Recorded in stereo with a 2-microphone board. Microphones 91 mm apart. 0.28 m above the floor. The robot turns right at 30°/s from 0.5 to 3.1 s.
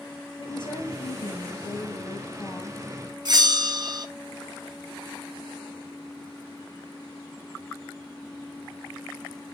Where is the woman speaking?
90° left, 1.5 m; by 2.8 s 160° left, 1.5 m.